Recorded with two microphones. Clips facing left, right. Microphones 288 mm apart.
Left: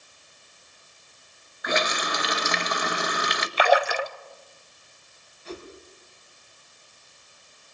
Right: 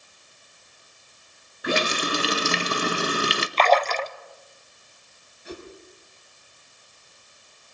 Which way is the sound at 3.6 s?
10° left (ahead or behind).